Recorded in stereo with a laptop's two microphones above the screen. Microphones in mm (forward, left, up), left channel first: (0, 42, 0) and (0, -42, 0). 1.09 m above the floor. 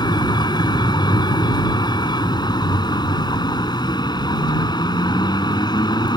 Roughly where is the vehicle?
Left.